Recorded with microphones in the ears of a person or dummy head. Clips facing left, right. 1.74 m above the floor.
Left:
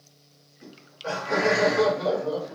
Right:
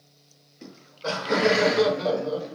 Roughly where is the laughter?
Right.